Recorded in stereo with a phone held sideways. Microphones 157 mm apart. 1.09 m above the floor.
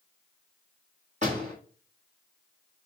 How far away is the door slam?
About 3 m.